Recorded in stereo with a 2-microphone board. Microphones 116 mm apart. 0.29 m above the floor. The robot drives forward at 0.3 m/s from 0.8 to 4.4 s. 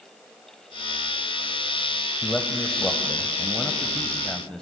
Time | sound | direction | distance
2.2 | a man speaking | 10° left (ahead or behind) | 1.5 m